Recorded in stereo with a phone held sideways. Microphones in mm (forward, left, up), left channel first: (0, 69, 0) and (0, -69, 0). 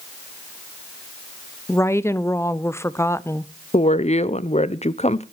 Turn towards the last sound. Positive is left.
turn(degrees=50)  # may be behind; listen again after turning